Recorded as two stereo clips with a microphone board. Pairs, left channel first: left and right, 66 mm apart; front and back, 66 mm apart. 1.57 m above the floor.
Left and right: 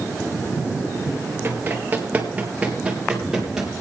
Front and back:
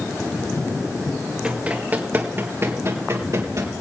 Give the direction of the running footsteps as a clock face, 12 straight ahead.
4 o'clock.